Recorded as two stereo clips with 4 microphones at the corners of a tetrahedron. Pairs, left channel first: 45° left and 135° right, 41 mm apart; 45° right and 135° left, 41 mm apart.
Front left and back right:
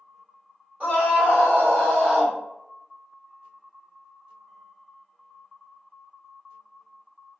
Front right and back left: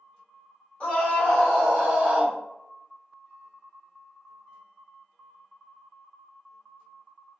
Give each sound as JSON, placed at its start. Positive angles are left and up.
{"t": 0.8, "sound": "a scream", "azimuth_deg": -90, "distance_m": 1.9}